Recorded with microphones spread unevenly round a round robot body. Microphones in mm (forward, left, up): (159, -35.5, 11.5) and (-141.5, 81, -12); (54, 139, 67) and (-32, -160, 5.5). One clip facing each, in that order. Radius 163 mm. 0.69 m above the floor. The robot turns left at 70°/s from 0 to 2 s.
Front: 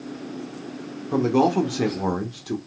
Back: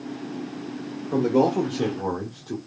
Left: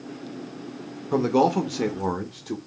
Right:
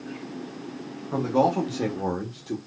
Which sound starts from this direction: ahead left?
A man speaking, at 1.1 s.